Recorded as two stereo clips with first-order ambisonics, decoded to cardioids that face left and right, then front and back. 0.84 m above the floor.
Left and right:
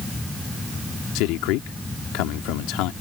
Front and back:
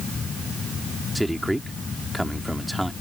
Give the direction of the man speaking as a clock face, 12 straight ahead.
9 o'clock.